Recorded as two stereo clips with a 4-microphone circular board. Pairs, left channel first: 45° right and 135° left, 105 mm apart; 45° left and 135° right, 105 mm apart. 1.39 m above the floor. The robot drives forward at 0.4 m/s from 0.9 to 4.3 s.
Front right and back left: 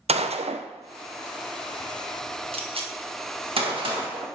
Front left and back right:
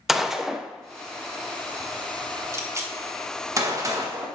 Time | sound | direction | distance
0.1 | a gunshot | 135° left | 0.6 m